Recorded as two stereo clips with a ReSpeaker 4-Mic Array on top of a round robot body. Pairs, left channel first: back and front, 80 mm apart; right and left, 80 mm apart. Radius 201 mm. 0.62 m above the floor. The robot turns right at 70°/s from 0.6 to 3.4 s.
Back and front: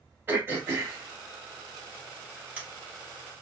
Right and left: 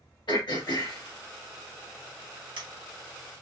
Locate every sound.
0.3 s throat clearing: 65° right, 2 m; by 2.6 s 75° left, 2 m